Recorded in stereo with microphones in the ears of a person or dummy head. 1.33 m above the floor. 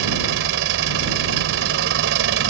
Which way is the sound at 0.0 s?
70° right (ahead or behind).